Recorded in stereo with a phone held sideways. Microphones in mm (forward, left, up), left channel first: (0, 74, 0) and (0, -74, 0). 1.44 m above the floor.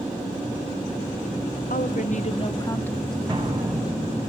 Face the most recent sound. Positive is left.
turn(degrees=-30)  # may be behind; listen again after turning